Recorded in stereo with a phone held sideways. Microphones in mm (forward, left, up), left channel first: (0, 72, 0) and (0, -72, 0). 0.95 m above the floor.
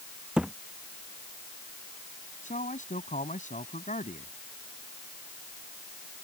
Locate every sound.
0.4 s a thud: 5° right (ahead or behind)
2.4 s a man speaking: 70° left (ahead or behind)